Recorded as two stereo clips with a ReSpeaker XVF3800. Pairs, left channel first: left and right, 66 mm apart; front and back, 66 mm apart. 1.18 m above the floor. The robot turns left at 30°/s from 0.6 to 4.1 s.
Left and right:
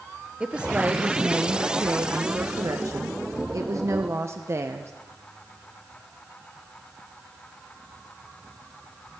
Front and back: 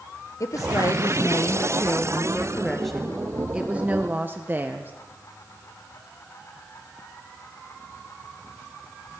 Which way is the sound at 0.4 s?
20° right.